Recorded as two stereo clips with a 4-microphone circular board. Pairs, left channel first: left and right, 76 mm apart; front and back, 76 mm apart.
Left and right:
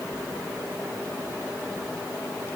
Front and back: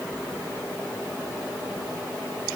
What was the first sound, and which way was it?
Only background noise.